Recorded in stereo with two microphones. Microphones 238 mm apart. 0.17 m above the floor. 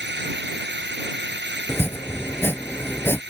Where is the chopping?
10° left (ahead or behind).